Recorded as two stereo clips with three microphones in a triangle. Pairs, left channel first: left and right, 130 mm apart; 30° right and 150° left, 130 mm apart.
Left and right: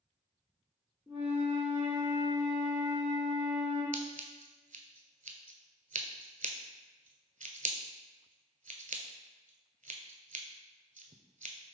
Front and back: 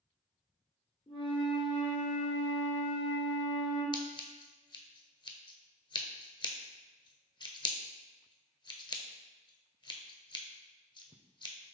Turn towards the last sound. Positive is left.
turn(degrees=-85)